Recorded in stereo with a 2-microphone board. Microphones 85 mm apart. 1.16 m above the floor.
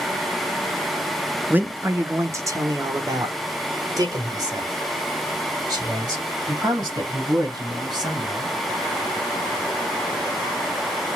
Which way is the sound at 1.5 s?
20° right (ahead or behind).